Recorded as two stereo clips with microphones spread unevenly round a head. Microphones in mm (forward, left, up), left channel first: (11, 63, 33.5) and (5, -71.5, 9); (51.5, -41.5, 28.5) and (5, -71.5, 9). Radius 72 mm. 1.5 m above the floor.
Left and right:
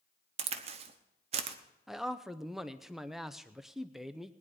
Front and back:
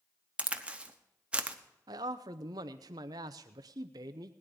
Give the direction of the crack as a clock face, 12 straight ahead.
2 o'clock.